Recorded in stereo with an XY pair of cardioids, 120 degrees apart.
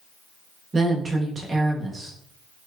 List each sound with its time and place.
0.7 s a woman speaking: 30° right, 1.0 m